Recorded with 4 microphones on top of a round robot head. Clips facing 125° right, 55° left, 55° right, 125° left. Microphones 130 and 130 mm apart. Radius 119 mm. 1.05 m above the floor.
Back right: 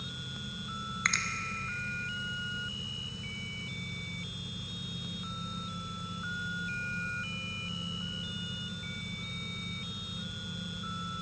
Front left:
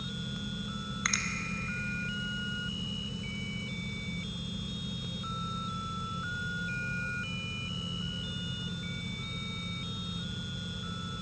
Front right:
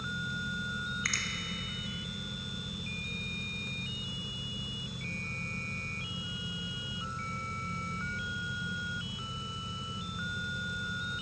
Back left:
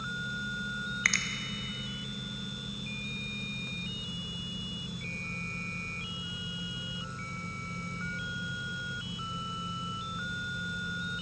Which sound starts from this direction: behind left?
A finger snap, at 1.1 s.